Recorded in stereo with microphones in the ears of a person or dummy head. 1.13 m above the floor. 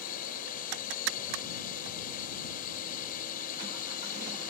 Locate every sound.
0.0 s a drone: 50° left (ahead or behind)